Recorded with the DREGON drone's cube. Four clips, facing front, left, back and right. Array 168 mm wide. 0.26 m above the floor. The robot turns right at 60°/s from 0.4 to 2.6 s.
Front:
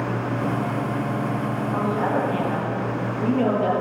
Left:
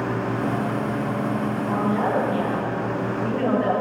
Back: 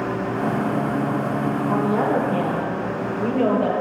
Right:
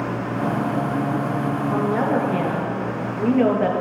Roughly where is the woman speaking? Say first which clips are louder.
Right 1 dB, back 3 dB; behind right.